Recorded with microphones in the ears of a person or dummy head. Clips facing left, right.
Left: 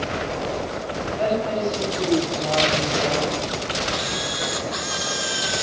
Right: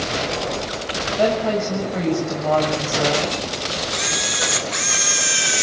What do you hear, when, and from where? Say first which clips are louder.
1.2 s a woman speaking: right 4 dB; 55° right (ahead or behind), 7.5 m
3.9 s a camera shutter: even; 30° right (ahead or behind), 0.8 m